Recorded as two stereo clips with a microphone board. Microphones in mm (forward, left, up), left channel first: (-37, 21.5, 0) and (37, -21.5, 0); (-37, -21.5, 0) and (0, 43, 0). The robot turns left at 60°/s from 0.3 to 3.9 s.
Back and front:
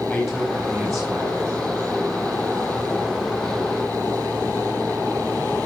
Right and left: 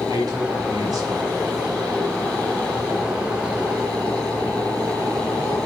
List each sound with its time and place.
0.1 s a man speaking: 65° left, 3.5 m; by 1.8 s 30° right, 3.5 m